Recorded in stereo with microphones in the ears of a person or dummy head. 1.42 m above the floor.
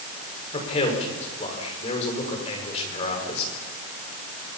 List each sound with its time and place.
0.5 s a man speaking: 35° left (ahead or behind), 5.5 m